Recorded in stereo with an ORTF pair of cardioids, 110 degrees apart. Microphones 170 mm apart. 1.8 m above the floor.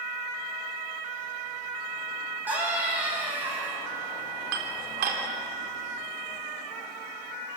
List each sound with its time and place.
2.5 s a scream: 10° right, 10 m
4.5 s dishes clattering: 70° right, 3.5 m